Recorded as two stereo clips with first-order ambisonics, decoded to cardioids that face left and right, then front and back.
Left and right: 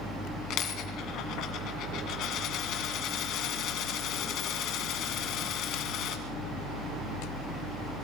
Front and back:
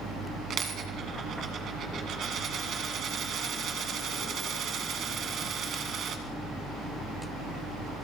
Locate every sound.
0.5 s a dropped coin: 125° left, 1.8 m